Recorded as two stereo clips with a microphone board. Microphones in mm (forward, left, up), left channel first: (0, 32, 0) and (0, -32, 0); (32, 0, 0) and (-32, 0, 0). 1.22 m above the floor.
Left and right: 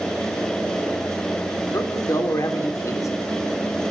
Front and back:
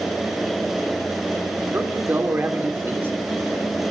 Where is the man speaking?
125° left, 3 m.